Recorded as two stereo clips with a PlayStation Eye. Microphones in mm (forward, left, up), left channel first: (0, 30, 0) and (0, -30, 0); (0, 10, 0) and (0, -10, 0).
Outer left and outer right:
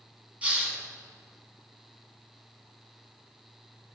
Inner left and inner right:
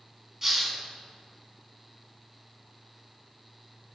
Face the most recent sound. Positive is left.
turn(degrees=-25)  # may be behind; listen again after turning